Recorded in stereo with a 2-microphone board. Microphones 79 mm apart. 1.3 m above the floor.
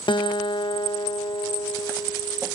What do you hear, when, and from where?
0.1 s a guitar: 85° left